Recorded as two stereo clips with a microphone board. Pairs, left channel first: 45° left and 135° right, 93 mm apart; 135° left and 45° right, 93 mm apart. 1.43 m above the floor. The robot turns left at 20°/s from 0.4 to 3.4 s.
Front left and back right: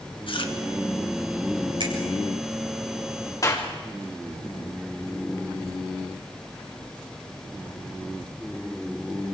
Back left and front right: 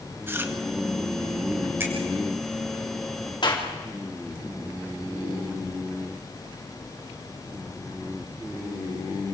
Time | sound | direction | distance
0.3 | chewing | 20° left | 1.7 m
1.8 | a finger snap | 110° right | 5 m
3.4 | a clap | 95° left | 3 m